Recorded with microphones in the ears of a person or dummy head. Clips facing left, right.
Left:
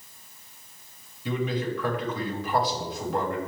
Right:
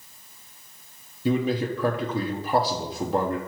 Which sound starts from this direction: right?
A man speaking, at 1.2 s.